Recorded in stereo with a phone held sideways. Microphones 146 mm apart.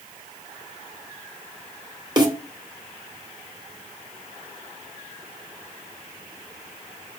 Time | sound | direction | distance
2.2 | a snare drum | 30° right (ahead or behind) | 1.6 m